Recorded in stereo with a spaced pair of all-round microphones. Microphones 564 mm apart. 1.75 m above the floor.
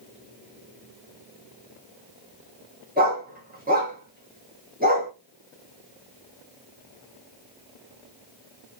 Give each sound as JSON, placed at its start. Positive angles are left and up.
{"t": 3.0, "sound": "a dog barking", "side_deg": -15, "distance_m": 1.3}